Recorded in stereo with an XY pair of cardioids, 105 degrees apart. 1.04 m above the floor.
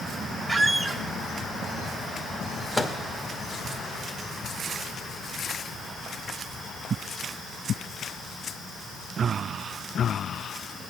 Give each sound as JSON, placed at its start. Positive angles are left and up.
{"t": 0.5, "sound": "a squeak", "azimuth_deg": -25, "distance_m": 0.6}
{"t": 2.8, "sound": "a microwave", "azimuth_deg": 10, "distance_m": 1.0}